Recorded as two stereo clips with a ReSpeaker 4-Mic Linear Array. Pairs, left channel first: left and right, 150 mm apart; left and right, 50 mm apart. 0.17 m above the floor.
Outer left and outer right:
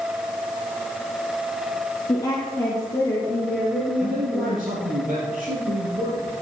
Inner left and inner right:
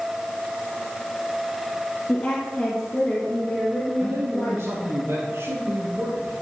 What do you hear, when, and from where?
2.1 s a woman speaking: 30° left (ahead or behind), 1.9 m; by 4.8 s centre (ahead or behind), 3 m
4.0 s a man speaking: 70° right (ahead or behind), 4 m